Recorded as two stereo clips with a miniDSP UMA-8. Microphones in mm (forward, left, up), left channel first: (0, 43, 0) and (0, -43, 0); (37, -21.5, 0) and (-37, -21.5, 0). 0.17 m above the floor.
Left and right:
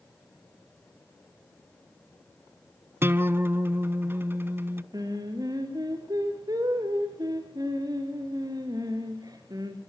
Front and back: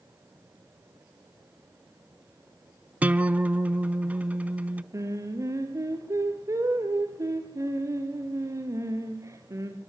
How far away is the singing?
About 4 m.